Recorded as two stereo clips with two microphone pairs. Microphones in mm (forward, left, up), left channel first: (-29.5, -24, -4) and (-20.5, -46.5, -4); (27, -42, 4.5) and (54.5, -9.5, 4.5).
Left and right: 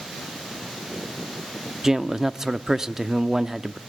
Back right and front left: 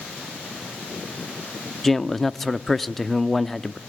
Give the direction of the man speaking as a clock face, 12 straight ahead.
2 o'clock.